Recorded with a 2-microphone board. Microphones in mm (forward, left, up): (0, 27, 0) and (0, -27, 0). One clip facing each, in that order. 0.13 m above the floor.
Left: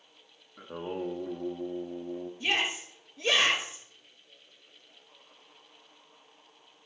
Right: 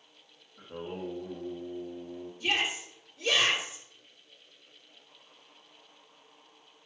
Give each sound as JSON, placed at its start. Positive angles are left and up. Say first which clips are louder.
{"t": 0.6, "sound": "singing", "louder": "left 3 dB", "side_deg": 85, "distance_m": 1.5}
{"t": 2.4, "sound": "a shout", "louder": "even", "side_deg": 30, "distance_m": 3.0}